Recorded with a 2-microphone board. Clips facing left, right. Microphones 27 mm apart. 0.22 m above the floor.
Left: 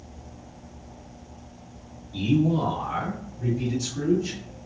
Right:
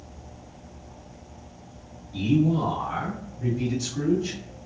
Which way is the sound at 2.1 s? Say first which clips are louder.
Even; 15° left (ahead or behind).